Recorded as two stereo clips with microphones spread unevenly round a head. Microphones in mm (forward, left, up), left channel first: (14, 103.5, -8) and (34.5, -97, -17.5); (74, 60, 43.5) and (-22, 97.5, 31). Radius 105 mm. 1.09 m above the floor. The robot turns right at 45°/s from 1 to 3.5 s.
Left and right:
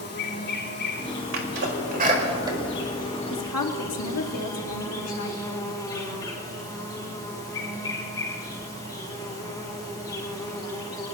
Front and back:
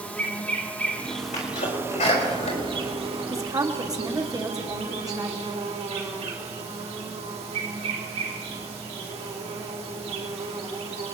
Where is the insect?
55° left, 3.5 m; by 11.2 s 170° left, 3.5 m.